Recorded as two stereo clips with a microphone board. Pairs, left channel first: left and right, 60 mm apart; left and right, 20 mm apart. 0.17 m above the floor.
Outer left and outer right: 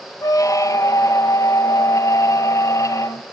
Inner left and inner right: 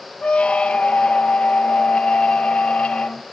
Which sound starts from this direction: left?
A squeak, at 0.2 s.